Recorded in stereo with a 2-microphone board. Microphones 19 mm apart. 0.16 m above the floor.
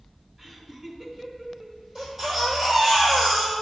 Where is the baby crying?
25° right (ahead or behind), 3 m.